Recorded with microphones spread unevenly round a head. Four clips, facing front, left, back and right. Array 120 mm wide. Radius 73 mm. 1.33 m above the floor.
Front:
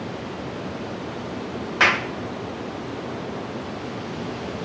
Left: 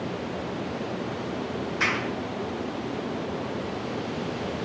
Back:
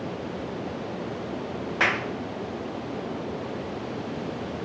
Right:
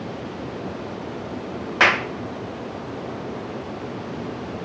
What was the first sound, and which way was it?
A clap, 60° right.